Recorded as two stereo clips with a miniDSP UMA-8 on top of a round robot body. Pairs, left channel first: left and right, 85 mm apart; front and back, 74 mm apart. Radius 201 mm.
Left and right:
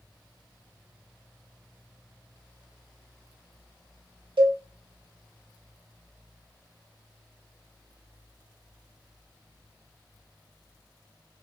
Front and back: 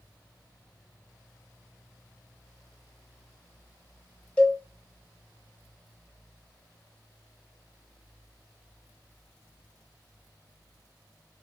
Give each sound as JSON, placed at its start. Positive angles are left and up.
{"t": 4.4, "sound": "a cowbell", "azimuth_deg": -75, "distance_m": 0.6}